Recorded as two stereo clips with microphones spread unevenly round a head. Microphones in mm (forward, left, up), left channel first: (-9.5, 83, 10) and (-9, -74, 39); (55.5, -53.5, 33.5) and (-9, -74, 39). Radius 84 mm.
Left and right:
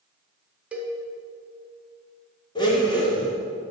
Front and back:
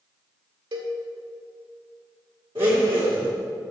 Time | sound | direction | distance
0.7 | a cowbell | 175° right | 1.6 m
2.5 | a blender | 160° left | 2.0 m